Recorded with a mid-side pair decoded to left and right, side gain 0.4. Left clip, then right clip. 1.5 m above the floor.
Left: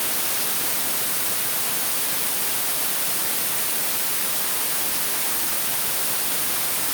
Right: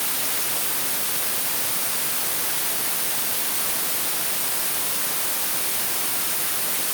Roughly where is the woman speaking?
No woman speaking in this recording.